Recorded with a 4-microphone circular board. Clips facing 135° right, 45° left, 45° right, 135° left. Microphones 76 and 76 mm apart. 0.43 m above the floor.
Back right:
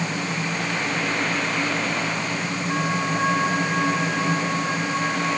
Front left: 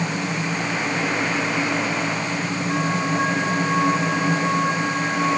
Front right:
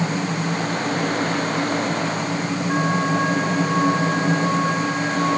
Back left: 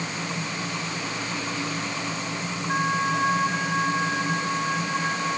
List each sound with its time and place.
Only background noise.